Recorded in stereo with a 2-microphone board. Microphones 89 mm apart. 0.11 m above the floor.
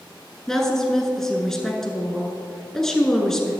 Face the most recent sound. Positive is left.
turn(degrees=5)  # may be behind; listen again after turning